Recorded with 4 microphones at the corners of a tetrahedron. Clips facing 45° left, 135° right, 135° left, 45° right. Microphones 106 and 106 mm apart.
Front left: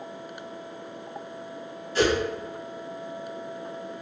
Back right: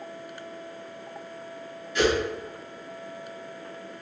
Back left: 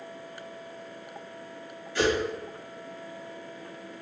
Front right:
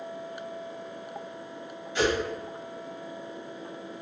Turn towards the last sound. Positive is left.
turn(degrees=15)